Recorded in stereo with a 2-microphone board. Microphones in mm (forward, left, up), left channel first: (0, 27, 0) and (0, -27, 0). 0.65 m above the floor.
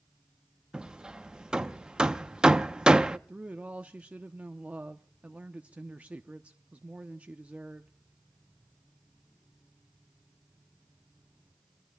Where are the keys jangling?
No keys jangling in this recording.